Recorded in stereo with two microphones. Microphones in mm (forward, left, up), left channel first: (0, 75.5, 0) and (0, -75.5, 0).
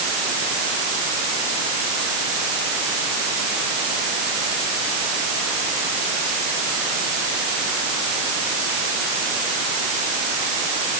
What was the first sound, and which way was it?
Only background noise.